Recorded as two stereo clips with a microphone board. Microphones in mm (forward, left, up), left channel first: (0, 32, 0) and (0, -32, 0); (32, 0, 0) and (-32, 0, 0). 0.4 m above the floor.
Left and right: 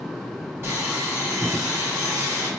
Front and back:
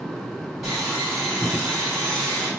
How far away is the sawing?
About 1.6 m.